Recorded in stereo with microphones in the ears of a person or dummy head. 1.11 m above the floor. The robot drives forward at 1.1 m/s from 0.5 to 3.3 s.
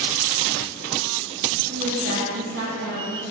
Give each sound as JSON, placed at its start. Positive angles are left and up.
{"t": 1.7, "sound": "a woman speaking", "side_deg": -60, "distance_m": 2.0}